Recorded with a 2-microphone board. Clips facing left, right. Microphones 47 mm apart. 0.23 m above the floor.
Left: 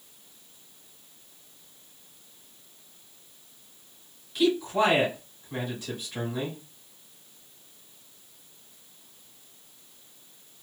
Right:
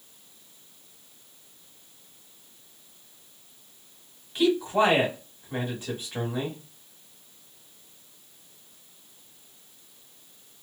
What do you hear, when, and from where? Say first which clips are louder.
4.3 s a man speaking: right 1 dB; 30° right (ahead or behind), 1.3 m